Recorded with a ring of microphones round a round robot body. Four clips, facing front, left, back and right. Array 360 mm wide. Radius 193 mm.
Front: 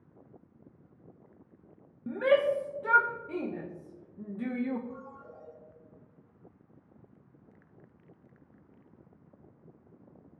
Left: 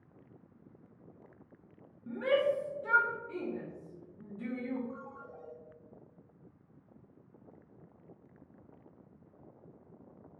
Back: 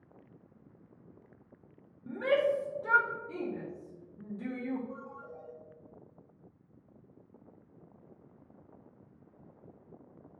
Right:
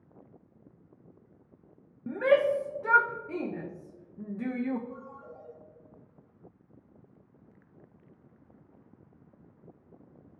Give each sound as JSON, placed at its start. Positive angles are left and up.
{"t": 2.1, "sound": "a shout", "azimuth_deg": -60, "distance_m": 0.8}
{"t": 4.9, "sound": "a ringtone", "azimuth_deg": 75, "distance_m": 2.0}